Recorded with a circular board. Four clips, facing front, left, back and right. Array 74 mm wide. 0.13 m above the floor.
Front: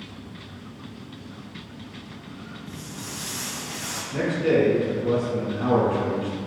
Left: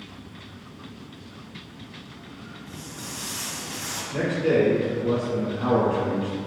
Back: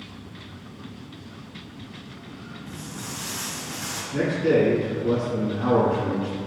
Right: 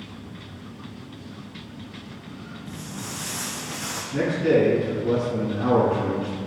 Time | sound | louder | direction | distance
2.7 | footsteps | right 4 dB, back 3 dB | 135° right | 0.8 m
4.1 | a man speaking | right 2 dB, back 1 dB | 35° left | 1.1 m